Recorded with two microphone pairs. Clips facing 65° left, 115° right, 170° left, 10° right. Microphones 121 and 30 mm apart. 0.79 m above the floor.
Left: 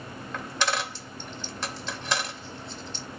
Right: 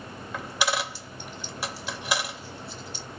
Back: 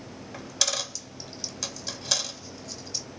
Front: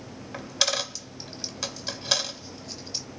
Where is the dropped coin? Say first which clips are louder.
Right 1 dB, front 3 dB; 50° right, 0.6 m.